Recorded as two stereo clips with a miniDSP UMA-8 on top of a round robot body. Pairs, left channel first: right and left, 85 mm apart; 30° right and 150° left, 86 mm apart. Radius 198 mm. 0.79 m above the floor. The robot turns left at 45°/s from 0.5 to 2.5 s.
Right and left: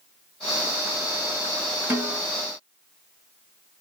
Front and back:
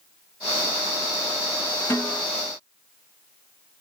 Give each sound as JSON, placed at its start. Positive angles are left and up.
{"t": 1.9, "sound": "a snare drum", "azimuth_deg": 25, "distance_m": 1.6}